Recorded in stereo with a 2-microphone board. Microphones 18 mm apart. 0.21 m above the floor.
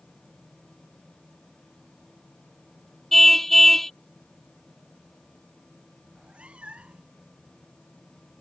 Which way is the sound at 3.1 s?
10° left (ahead or behind).